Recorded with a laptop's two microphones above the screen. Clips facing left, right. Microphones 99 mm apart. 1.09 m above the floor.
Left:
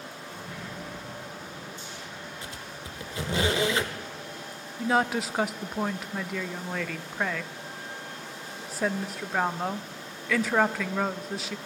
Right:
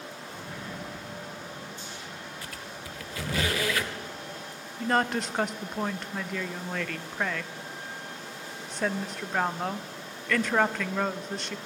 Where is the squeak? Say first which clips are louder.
Even; 25° left (ahead or behind), 0.9 m.